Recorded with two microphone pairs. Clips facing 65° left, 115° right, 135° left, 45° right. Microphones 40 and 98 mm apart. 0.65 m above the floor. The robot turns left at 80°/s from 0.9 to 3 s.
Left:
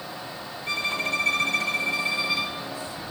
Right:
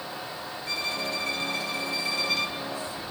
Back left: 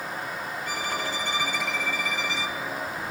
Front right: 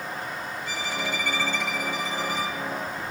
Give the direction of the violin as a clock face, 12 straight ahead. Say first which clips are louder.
Left 5 dB, even; 8 o'clock.